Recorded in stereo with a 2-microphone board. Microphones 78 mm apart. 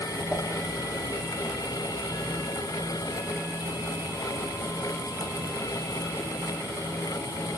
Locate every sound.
0.3 s a whoosh: 15° right (ahead or behind), 6 m